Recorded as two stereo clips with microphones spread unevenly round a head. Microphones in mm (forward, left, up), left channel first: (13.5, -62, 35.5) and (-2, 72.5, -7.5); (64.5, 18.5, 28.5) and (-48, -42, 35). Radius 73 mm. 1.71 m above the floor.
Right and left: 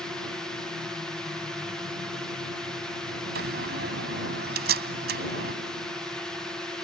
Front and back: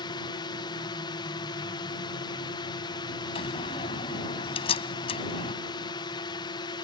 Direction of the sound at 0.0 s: 25° left.